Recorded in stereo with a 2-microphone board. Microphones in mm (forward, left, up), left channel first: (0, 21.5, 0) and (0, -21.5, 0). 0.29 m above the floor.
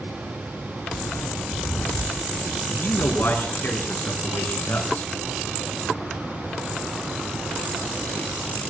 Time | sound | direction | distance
0.9 | footsteps | 65° left (ahead or behind) | 0.7 m
2.7 | a man speaking | 65° left (ahead or behind) | 4 m